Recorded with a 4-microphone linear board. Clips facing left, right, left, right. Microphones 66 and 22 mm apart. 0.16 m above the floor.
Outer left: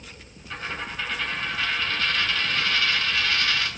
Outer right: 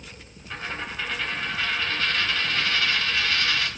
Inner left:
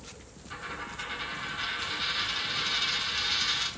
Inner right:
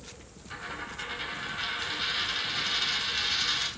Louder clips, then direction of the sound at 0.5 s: Even, even; 20° right (ahead or behind).